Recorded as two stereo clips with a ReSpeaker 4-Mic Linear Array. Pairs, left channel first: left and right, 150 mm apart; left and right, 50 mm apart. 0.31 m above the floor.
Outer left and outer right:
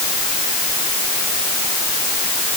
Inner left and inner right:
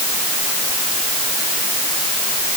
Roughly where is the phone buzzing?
No phone buzzing in this recording.